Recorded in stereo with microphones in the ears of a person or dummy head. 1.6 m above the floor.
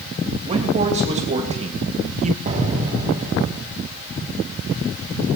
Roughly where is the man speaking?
Right.